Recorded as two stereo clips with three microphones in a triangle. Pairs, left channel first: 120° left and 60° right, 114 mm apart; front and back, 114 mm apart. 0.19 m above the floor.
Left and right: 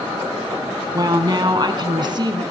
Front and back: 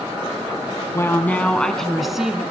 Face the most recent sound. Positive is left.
turn(degrees=-95)